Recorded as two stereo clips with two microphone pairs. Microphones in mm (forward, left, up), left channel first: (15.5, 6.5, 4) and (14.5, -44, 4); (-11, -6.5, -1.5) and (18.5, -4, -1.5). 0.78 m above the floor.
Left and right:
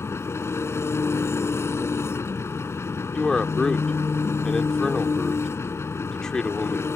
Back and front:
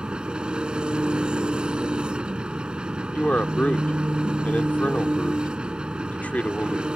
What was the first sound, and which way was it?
An engine running, 60° left.